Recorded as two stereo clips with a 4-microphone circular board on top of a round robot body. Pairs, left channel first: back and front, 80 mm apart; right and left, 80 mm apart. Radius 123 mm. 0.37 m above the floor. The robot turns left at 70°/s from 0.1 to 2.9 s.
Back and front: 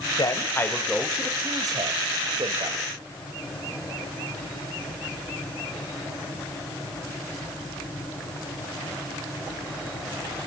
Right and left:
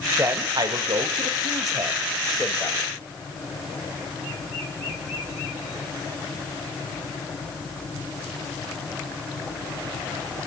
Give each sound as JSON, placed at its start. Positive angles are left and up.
{"t": 0.2, "sound": "a man speaking", "azimuth_deg": 150, "distance_m": 2.0}